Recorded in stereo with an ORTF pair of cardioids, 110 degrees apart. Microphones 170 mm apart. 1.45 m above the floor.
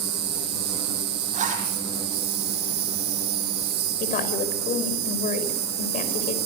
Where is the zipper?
45° right, 9 m.